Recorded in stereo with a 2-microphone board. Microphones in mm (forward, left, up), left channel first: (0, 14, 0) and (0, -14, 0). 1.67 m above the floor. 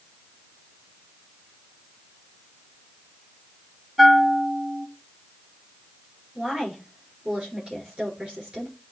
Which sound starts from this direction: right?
A woman speaking, at 6.3 s.